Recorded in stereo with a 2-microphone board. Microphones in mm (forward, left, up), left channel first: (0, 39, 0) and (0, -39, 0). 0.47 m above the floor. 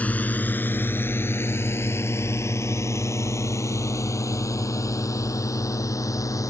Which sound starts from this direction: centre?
A drone, at 0.0 s.